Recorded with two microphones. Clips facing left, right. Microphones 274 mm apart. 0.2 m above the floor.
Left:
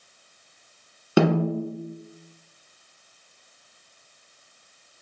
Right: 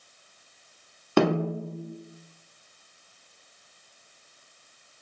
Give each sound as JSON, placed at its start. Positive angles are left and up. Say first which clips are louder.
{"t": 1.2, "sound": "a snare drum", "louder": "left 3 dB", "side_deg": 10, "distance_m": 1.0}